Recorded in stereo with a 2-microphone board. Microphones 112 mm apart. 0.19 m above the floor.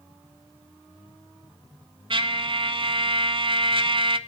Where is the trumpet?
50° right (ahead or behind), 0.8 m.